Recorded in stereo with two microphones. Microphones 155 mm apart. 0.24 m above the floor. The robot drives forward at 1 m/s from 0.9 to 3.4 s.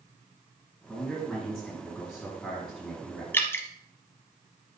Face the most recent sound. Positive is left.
turn(degrees=15)  # may be behind; listen again after turning